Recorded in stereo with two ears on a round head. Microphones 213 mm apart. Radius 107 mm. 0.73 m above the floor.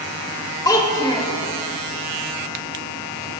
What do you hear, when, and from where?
0.7 s a child speaking: 20° left (ahead or behind), 2.5 m